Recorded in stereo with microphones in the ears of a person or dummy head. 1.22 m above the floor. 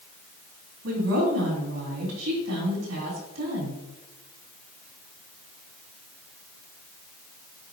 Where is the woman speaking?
85° right, 3 m.